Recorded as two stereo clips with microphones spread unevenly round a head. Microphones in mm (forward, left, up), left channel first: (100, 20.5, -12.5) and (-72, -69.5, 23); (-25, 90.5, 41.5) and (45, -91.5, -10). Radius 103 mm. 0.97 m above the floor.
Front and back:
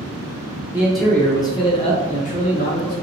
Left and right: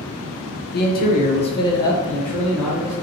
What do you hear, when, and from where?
0.7 s a man speaking: 115° left, 0.7 m; by 2.9 s 5° left, 1.1 m